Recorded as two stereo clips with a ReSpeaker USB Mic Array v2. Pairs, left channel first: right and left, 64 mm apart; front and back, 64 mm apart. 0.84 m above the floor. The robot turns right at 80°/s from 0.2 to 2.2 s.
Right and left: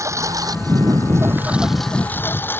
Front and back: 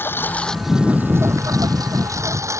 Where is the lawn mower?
55° left; by 2.6 s 145° right.